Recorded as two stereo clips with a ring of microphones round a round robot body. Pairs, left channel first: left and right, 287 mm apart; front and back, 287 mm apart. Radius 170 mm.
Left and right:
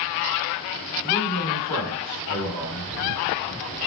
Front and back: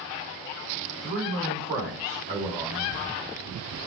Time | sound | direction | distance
1.0 | a man speaking | 110° left | 3 m